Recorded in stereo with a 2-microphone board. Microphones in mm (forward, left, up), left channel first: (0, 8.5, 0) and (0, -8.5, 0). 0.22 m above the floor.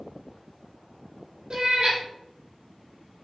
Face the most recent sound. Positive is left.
turn(degrees=-65)  # may be behind; listen again after turning